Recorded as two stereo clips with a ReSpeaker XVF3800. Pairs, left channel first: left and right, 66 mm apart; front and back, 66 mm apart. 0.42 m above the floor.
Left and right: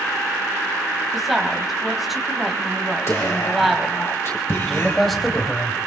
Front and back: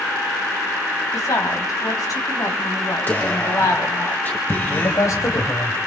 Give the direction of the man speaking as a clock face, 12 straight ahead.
12 o'clock.